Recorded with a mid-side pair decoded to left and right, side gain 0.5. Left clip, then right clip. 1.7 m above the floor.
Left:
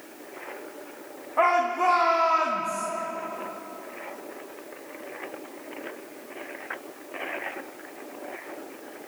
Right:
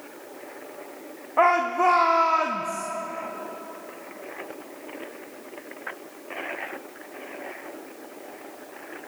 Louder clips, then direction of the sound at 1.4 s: Right 2 dB; 25° right.